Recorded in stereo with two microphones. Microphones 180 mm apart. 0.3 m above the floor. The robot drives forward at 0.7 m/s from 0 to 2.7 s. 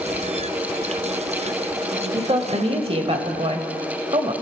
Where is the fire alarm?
I don't hear a fire alarm.